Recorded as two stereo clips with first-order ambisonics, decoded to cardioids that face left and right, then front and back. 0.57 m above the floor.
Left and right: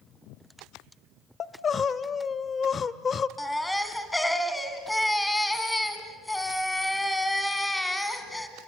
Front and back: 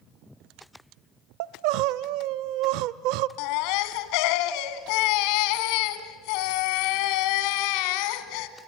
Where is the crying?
160° left, 0.6 m.